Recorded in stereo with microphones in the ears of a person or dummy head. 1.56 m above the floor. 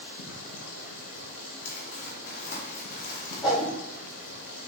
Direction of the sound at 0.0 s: 55° left (ahead or behind).